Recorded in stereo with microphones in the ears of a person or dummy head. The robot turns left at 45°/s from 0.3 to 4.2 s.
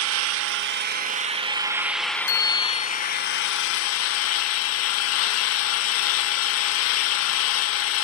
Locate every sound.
0.0 s an engine running: 100° right, 1.2 m; by 8.1 s 85° left, 1.2 m
2.3 s a bicycle bell: 80° left, 4 m; by 2.9 s 55° left (ahead or behind), 4 m